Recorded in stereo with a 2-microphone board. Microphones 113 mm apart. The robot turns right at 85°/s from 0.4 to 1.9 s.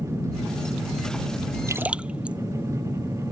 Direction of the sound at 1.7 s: 30° right (ahead or behind).